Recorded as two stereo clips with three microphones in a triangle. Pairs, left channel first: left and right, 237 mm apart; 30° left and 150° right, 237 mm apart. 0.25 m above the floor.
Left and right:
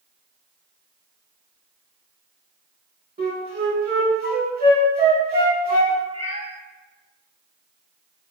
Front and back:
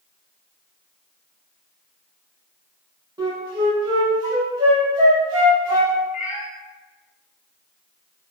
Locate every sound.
3.2 s a flute: 85° right, 0.8 m
6.1 s a cat meowing: 30° right, 0.7 m